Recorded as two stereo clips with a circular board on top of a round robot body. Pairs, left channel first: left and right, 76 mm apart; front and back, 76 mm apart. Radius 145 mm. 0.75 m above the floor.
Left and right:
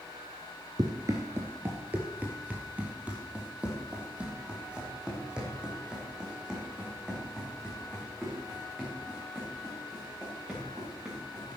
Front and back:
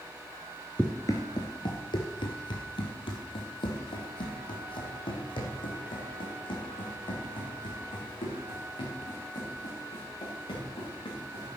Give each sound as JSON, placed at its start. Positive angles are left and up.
{"t": 0.8, "sound": "running footsteps", "azimuth_deg": -70, "distance_m": 0.7}